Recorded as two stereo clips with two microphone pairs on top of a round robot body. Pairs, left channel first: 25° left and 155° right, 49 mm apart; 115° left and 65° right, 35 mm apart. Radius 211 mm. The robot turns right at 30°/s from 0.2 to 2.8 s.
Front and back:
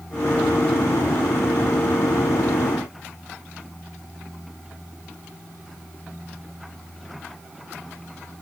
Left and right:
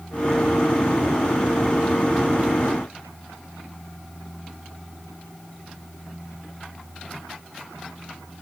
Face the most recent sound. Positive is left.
No sound to turn to.